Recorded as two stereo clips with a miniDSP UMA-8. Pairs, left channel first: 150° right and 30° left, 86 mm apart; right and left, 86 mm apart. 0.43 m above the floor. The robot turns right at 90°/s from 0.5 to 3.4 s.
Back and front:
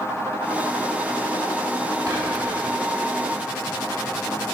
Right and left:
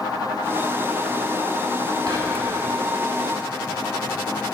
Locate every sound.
2.1 s whispering: 65° left, 1.4 m; by 2.6 s 110° left, 1.4 m